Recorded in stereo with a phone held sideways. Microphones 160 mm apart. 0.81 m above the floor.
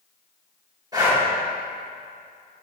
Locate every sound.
0.9 s breathing: 25° right (ahead or behind), 2.5 m